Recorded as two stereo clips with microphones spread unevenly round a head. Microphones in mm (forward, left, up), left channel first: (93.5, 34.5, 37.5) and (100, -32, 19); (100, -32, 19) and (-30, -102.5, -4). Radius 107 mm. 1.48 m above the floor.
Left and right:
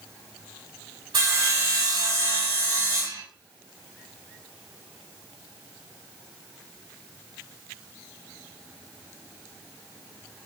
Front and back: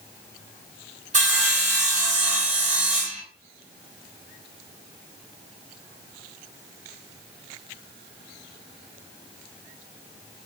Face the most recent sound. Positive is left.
turn(degrees=-120)